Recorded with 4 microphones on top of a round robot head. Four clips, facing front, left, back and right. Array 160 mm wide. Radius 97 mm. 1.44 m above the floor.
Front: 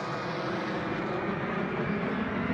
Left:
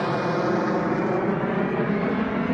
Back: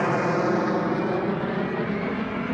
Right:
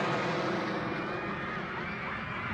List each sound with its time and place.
0.0 s an aircraft: 150° left; by 2.5 s 100° left